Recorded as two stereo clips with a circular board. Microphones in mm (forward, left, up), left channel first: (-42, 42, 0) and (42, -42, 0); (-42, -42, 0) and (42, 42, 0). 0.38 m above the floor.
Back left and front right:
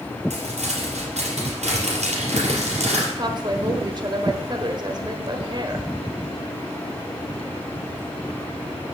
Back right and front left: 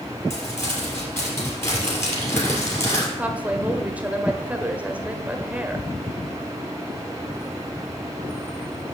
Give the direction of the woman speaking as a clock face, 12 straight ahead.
1 o'clock.